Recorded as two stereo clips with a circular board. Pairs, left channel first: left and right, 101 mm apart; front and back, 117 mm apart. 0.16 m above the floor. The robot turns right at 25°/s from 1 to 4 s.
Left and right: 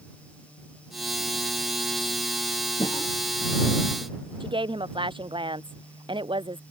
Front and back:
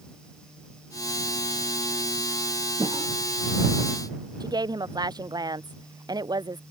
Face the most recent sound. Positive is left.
turn(degrees=-125)